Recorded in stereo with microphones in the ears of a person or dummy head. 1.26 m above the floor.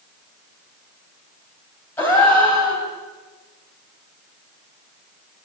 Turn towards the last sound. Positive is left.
turn(degrees=10)  # may be behind; listen again after turning